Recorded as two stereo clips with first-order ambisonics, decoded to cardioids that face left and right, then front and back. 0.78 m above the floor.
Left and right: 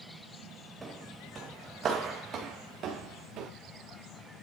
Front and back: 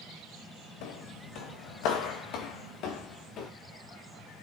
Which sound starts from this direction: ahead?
Footsteps, at 0.8 s.